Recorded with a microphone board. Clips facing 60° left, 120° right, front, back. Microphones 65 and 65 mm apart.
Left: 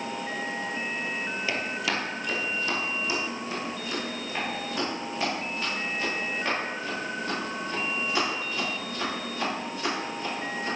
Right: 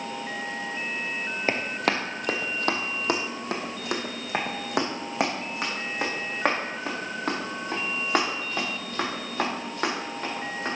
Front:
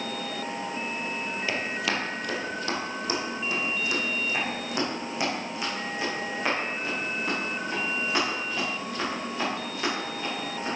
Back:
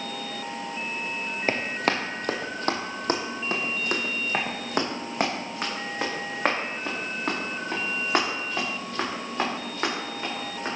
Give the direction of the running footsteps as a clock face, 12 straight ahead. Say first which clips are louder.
Right 5 dB, back 5 dB; 5 o'clock.